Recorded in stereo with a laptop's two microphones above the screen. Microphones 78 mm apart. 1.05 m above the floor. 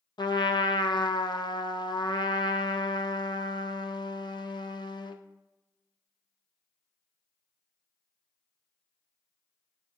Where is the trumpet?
70° left (ahead or behind), 0.6 m.